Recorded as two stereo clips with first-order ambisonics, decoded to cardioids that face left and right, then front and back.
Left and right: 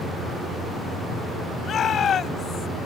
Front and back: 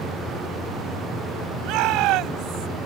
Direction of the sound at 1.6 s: 150° left.